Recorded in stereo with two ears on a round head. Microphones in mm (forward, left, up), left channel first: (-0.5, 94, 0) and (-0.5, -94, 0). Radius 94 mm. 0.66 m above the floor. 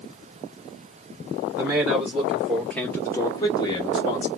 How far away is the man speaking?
About 1.8 m.